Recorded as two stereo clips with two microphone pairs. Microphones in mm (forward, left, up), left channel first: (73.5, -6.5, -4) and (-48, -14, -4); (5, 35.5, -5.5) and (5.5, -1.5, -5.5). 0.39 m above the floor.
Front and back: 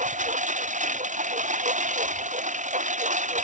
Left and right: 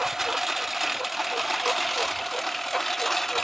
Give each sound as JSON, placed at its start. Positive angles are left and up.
{"t": 0.0, "sound": "a lawn mower", "azimuth_deg": -175}